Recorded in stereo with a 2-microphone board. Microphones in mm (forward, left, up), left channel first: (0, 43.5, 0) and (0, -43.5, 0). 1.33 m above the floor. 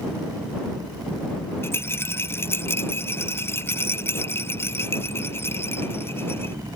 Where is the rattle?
25° left (ahead or behind).